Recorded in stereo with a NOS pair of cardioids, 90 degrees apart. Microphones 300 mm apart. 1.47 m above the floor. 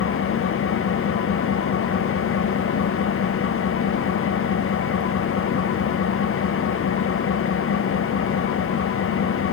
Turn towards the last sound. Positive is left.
turn(degrees=45)